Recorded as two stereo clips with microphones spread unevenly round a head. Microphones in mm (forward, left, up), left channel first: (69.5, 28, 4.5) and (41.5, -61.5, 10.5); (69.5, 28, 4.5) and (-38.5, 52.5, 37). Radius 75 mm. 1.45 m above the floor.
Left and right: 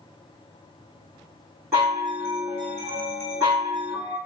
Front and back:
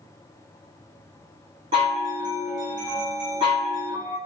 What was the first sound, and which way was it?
A chime, straight behind.